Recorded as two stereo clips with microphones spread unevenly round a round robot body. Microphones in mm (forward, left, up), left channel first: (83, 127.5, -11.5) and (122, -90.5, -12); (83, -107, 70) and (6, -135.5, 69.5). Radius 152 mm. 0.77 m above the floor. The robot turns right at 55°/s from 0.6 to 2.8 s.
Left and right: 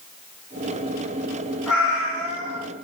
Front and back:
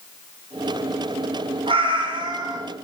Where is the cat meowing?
170° right, 2.5 m; by 2.6 s 115° right, 2.5 m.